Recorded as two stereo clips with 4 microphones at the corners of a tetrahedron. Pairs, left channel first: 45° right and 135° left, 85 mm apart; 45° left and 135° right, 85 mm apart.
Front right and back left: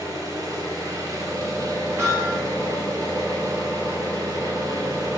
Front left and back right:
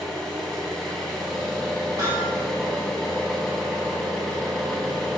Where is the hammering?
Straight behind, 1.5 m.